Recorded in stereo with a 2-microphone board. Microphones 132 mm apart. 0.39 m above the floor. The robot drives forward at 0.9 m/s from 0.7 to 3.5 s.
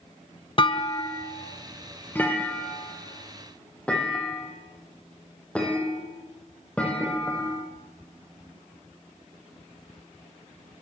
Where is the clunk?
40° left (ahead or behind), 0.6 m; by 7.7 s 10° left (ahead or behind), 3 m.